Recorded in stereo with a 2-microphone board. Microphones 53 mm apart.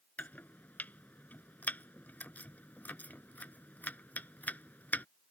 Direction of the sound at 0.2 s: 30° left (ahead or behind).